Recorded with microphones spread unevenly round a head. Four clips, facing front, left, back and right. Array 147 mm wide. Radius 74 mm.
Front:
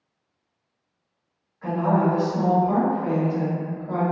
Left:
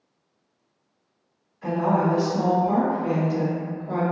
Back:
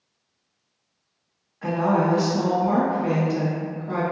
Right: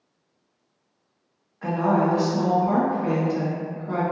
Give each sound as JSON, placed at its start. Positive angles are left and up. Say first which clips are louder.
{"t": 1.6, "sound": "a woman speaking", "louder": "right 1 dB, even", "azimuth_deg": -130, "distance_m": 0.8}